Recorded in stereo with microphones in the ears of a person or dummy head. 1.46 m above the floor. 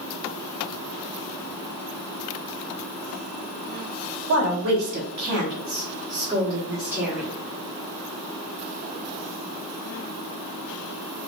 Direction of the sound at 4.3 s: 75° right (ahead or behind).